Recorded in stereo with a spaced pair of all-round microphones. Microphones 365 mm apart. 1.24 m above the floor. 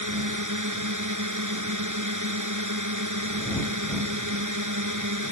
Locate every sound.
0.0 s a drone: 55° right (ahead or behind)